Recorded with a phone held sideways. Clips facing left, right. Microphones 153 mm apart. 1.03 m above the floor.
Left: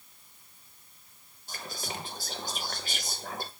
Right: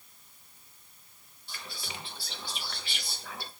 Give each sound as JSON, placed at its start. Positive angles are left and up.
{"t": 1.5, "sound": "whispering", "side_deg": 45, "distance_m": 0.5}